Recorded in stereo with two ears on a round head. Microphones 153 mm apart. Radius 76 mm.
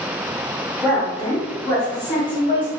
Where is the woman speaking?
10° left (ahead or behind), 1.3 m; by 2.7 s 35° left (ahead or behind), 0.8 m.